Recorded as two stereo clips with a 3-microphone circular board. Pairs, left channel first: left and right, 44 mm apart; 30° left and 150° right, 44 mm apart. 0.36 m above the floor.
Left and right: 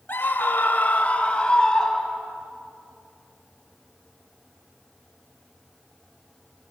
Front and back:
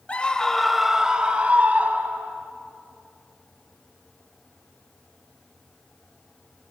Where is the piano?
I don't hear a piano.